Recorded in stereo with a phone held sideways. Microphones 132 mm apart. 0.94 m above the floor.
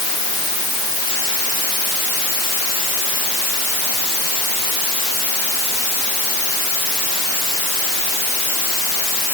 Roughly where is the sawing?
No sawing in this recording.